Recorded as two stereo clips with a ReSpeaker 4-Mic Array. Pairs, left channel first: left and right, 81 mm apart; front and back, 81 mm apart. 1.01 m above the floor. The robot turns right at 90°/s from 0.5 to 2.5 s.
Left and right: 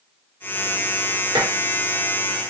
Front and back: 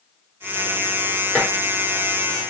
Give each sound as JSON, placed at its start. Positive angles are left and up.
{"t": 1.4, "sound": "dishes clattering", "azimuth_deg": -80, "distance_m": 1.1}